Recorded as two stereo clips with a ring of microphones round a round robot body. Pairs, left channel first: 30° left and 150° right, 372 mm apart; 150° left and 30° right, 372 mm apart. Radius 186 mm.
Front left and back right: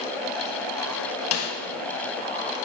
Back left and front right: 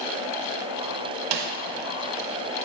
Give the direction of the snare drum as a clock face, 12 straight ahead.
1 o'clock.